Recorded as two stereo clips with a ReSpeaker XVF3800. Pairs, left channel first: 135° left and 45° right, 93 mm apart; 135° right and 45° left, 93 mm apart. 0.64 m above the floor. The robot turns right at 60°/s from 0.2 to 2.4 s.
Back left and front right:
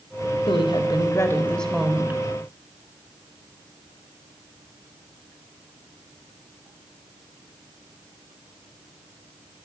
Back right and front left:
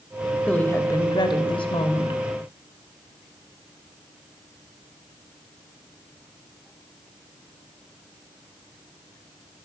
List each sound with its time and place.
0.5 s a woman speaking: 150° left, 3 m; by 2.2 s 105° right, 3 m